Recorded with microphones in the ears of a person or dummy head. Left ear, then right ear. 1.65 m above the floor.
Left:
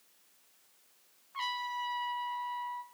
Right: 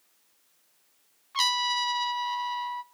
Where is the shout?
No shout in this recording.